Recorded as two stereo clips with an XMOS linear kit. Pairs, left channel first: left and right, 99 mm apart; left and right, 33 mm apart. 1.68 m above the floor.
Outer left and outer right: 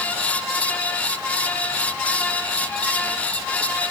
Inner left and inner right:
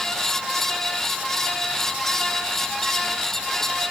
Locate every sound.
Only background noise.